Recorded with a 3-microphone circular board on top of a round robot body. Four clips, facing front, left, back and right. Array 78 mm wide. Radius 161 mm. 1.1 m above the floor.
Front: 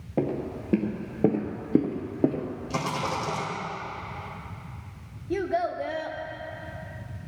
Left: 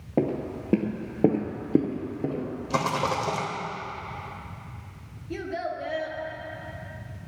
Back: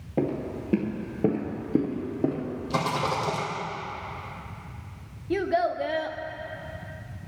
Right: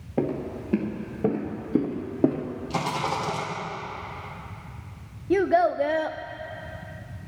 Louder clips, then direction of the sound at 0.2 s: Left 1 dB, even; 90° left.